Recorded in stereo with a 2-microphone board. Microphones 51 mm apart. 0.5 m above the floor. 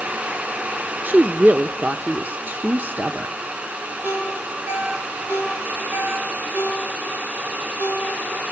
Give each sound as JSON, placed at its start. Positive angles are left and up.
{"t": 1.0, "sound": "a woman speaking", "side_deg": -35, "distance_m": 0.9}
{"t": 4.0, "sound": "a ringtone", "side_deg": -45, "distance_m": 7.5}